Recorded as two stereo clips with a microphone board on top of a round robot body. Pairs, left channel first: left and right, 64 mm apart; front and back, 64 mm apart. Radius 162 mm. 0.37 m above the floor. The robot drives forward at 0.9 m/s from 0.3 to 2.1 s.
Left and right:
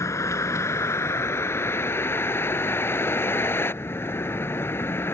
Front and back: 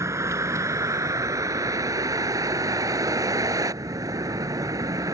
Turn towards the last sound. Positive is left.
turn(degrees=145)